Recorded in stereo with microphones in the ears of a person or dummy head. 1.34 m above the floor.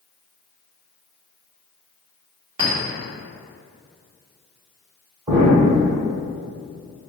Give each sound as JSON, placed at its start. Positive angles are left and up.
{"t": 2.6, "sound": "a clink", "side_deg": -35, "distance_m": 1.5}
{"t": 5.3, "sound": "an explosion", "side_deg": -20, "distance_m": 1.2}